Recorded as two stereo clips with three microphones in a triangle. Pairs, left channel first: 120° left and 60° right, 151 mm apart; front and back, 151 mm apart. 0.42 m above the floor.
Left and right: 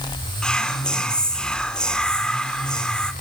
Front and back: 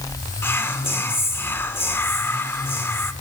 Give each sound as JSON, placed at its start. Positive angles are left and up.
{"t": 0.4, "sound": "whispering", "azimuth_deg": 45, "distance_m": 0.9}